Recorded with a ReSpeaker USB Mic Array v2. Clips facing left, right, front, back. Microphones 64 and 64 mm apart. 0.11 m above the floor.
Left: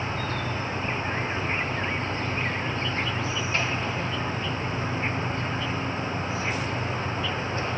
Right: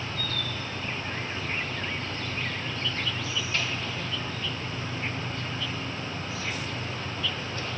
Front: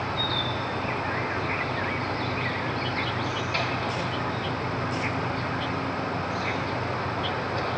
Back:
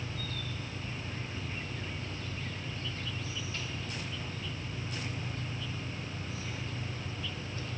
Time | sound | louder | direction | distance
0.0 | an insect | left 4 dB, front 13 dB | 25° left | ?